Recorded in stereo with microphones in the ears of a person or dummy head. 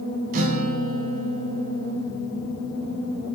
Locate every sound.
0.3 s a guitar: 50° right (ahead or behind), 1.3 m